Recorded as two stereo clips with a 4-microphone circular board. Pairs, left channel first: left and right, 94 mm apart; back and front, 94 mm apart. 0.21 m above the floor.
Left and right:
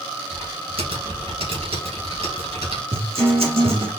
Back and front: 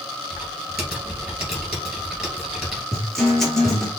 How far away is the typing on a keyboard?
About 2 m.